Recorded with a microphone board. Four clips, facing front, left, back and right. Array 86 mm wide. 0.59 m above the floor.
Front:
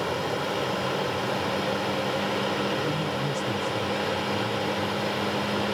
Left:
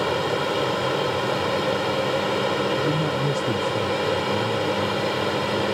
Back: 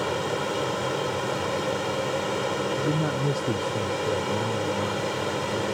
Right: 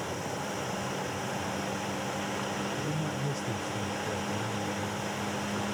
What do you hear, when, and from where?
0.0 s an aircraft: 100° left
2.8 s a man speaking: 140° left